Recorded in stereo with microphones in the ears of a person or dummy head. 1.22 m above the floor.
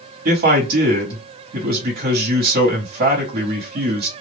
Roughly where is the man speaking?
Right.